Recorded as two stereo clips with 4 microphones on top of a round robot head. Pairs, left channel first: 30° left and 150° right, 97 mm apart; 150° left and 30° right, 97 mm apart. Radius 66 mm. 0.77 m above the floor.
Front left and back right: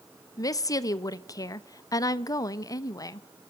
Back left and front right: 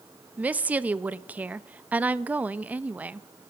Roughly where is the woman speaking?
Ahead left.